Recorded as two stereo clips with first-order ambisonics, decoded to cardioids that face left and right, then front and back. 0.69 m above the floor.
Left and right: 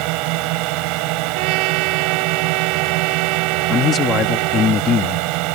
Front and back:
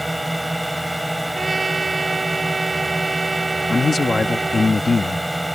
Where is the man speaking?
60° left.